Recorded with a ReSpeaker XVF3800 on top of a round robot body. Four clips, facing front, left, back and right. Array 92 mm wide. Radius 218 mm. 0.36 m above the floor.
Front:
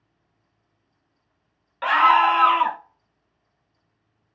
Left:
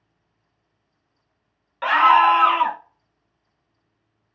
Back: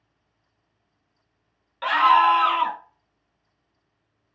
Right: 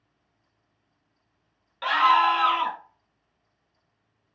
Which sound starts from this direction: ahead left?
A scream, at 1.8 s.